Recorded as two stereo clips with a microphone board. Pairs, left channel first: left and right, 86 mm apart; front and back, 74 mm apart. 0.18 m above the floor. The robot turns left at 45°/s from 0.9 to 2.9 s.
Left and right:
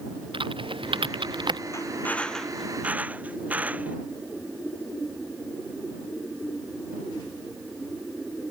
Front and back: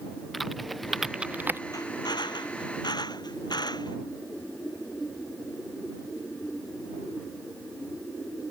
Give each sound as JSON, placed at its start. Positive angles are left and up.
{"t": 0.3, "sound": "typing on a keyboard", "azimuth_deg": -90}
{"t": 1.7, "sound": "a drill", "azimuth_deg": 35}